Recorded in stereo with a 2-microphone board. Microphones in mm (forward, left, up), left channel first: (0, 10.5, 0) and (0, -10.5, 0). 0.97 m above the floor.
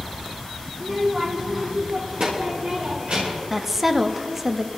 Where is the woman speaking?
15° right (ahead or behind), 0.8 m.